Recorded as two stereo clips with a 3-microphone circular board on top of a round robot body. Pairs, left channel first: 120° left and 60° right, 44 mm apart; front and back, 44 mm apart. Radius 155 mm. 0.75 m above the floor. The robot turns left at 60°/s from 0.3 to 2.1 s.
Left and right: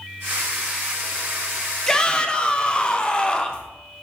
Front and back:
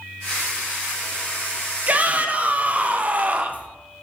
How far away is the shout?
About 1.0 m.